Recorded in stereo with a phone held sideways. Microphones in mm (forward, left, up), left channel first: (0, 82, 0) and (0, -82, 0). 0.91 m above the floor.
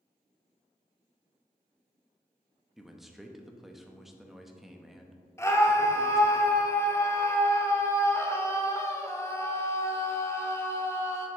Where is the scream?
15° left (ahead or behind), 0.8 m.